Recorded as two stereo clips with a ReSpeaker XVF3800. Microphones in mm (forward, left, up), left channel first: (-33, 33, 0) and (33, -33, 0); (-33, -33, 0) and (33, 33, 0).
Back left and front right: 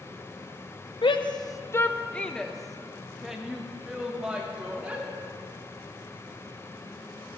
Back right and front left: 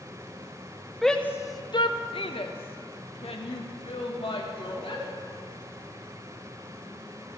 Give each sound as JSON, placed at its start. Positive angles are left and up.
{"t": 1.0, "sound": "a shout", "azimuth_deg": 135, "distance_m": 0.7}